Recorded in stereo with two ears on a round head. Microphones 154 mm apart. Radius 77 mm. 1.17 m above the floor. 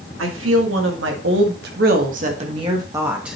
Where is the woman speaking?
85° right, 2 m; by 3.4 s 5° right (ahead or behind), 1.4 m.